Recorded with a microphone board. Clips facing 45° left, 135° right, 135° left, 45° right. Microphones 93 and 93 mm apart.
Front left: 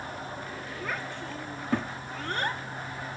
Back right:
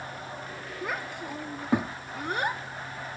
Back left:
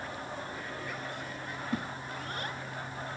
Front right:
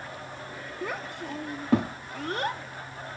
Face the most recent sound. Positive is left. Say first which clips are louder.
# back right 2 dB, front right 5 dB
turn(degrees=-60)